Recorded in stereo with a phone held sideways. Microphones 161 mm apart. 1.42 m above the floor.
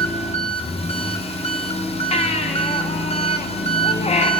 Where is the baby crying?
40° left (ahead or behind), 0.6 m.